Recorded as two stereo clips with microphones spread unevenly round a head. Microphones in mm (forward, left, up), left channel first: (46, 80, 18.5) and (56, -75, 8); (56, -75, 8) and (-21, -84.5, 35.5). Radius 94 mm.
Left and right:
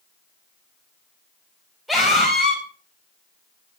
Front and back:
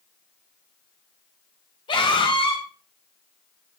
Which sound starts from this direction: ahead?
A scream, at 1.9 s.